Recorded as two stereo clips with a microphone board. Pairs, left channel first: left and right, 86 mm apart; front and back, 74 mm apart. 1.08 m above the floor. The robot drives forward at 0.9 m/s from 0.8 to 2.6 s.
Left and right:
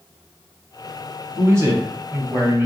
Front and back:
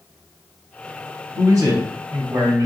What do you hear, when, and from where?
1.4 s a man speaking: 140° right, 1.7 m; by 2.7 s 155° right, 2.5 m